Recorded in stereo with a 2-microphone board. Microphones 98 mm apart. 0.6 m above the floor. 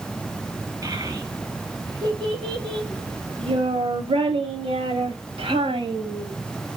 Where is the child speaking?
35° right (ahead or behind), 2 m; by 6.3 s 70° right (ahead or behind), 2.5 m.